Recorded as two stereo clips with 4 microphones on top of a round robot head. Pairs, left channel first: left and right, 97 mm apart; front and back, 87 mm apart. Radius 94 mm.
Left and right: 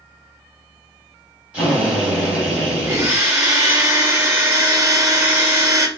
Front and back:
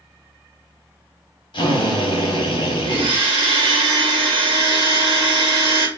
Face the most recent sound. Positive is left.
turn(degrees=-150)